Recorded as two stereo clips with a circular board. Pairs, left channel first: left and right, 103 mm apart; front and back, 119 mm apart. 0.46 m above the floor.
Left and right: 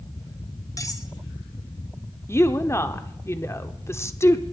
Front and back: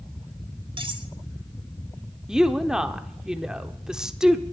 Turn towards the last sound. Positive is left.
turn(degrees=105)